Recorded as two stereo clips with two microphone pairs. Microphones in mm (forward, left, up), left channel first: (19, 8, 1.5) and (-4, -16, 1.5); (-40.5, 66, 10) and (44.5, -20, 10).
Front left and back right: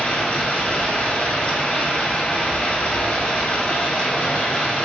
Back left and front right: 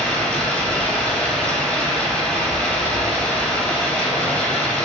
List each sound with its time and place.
0.0 s running water: 60° left, 0.8 m